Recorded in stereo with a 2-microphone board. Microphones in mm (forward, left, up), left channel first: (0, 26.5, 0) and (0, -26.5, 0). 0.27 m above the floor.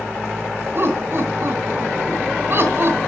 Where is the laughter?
50° right (ahead or behind), 2.5 m.